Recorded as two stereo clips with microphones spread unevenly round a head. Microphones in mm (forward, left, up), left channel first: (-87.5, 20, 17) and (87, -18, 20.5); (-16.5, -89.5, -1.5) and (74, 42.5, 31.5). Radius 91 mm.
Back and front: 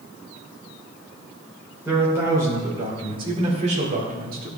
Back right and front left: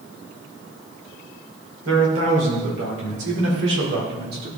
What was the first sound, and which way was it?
A man speaking, 65° left.